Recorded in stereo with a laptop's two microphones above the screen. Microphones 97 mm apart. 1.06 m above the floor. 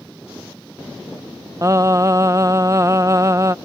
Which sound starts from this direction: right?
Singing, at 1.6 s.